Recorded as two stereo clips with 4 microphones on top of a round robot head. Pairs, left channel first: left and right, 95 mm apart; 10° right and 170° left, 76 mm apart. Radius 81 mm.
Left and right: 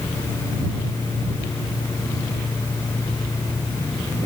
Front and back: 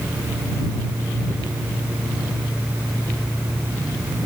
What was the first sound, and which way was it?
Only background noise.